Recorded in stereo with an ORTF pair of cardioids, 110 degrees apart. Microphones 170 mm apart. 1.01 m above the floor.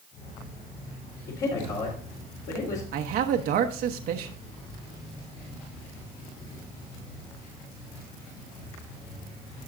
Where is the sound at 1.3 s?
65° left, 3.5 m.